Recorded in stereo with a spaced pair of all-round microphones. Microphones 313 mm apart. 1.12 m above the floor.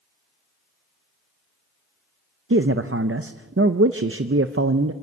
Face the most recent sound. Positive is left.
turn(degrees=-45)  # may be behind; listen again after turning